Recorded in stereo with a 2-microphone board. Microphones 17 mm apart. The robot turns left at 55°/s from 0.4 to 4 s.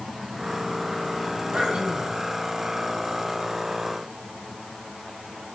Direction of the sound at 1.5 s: 75° right.